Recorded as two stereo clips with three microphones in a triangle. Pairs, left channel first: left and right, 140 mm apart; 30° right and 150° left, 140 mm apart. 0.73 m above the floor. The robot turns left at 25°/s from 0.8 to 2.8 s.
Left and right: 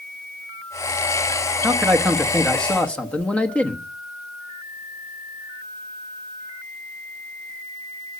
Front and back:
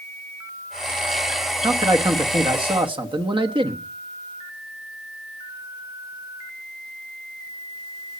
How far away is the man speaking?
About 1.1 m.